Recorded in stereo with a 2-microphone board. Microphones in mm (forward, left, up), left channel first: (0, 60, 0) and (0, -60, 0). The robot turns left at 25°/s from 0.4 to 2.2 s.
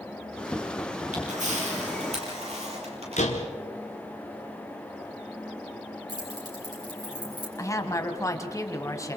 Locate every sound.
1.1 s a camera shutter: 80° right, 7 m; by 3.2 s 60° right (ahead or behind), 7 m
3.2 s a door slam: 75° left (ahead or behind), 3 m
6.1 s keys jangling: 35° right (ahead or behind), 7 m
7.6 s a woman speaking: 25° left (ahead or behind), 2 m